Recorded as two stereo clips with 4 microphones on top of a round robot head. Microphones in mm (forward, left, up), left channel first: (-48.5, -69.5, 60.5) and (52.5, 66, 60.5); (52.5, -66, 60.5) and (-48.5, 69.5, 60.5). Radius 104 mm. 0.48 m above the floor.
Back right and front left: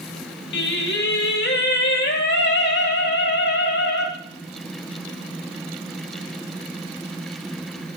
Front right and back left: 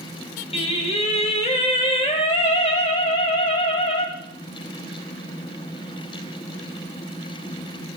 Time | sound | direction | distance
0.5 | singing | 110° right | 2 m